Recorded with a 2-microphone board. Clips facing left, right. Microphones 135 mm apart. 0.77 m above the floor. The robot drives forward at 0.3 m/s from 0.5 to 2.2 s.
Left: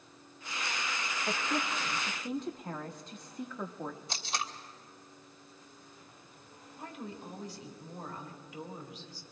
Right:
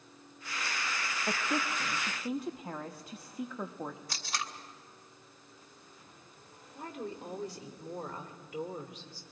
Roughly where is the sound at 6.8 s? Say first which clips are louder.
Right 3 dB; right.